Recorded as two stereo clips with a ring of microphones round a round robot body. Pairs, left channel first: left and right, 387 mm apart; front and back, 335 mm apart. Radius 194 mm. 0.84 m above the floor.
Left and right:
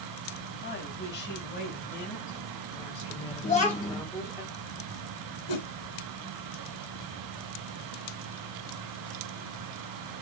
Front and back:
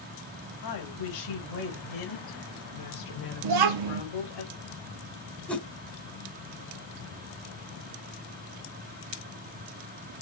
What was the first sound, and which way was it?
A woman speaking, 30° left.